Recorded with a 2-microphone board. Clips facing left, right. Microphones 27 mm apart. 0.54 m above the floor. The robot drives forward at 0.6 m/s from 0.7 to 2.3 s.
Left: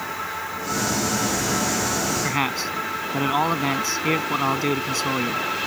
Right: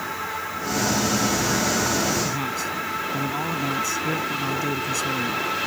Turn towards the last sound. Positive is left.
turn(degrees=45)  # may be behind; listen again after turning